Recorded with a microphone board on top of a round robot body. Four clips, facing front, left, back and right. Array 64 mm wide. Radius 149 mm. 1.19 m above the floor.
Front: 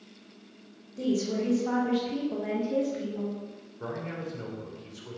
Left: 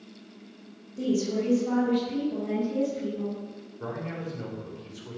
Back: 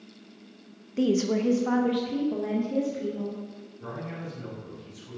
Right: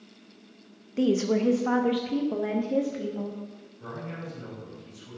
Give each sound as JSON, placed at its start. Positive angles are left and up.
{"t": 1.0, "sound": "a woman speaking", "azimuth_deg": -125, "distance_m": 1.5}
{"t": 3.8, "sound": "a man speaking", "azimuth_deg": 40, "distance_m": 5.5}